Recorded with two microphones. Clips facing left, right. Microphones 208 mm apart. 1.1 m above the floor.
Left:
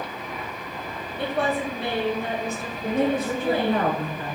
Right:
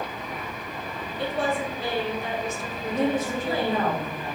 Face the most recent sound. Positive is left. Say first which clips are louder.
# left 2 dB
turn(degrees=55)  # may be behind; listen again after turning